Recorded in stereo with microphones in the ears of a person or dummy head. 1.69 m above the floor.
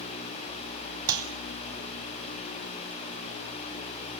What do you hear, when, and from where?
1.1 s a clap: 20° right (ahead or behind), 3 m